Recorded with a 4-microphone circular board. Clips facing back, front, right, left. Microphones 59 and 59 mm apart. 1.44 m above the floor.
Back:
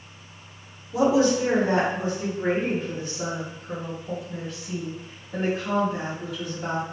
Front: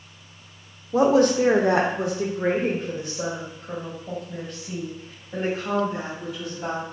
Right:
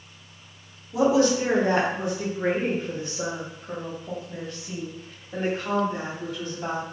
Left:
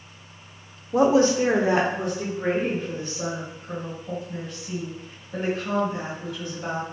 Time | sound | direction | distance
0.9 | a woman speaking | 50° left | 0.6 m